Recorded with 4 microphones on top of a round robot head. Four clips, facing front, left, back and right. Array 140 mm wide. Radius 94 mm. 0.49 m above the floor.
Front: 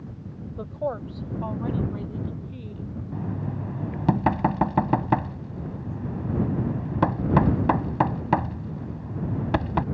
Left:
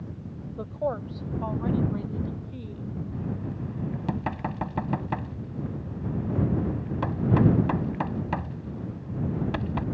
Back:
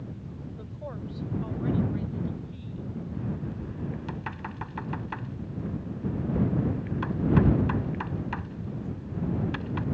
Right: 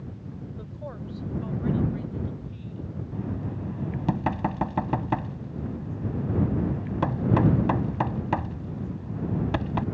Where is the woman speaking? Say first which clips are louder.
Left 13 dB, front 13 dB; 45° left; by 3.0 s 50° left.